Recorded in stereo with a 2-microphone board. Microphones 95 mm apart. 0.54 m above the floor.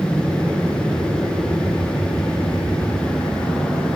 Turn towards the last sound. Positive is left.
turn(degrees=5)  # may be behind; listen again after turning